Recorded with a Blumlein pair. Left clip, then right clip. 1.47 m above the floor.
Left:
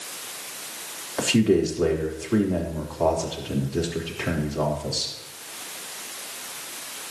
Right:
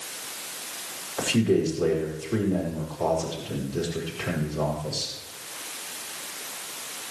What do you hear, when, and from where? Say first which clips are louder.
1.2 s a man speaking: left 3 dB; 15° left, 4 m